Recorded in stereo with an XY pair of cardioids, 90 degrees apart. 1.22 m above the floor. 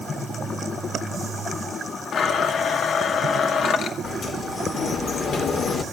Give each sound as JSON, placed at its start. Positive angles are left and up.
{"t": 2.1, "sound": "a blender", "azimuth_deg": 70, "distance_m": 1.9}
{"t": 4.0, "sound": "a sliding door", "azimuth_deg": 60, "distance_m": 2.5}